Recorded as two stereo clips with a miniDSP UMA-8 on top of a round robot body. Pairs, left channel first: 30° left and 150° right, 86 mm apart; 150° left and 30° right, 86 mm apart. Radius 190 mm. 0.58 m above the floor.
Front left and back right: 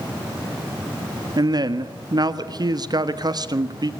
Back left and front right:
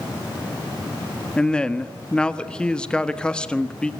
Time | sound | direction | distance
1.4 | a man speaking | 135° right | 1.8 m